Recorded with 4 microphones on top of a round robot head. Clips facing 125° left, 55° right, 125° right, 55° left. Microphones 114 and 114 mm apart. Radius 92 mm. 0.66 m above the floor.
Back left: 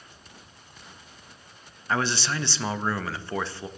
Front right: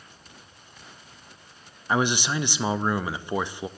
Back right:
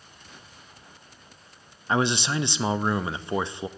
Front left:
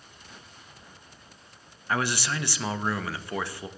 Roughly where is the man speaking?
Right.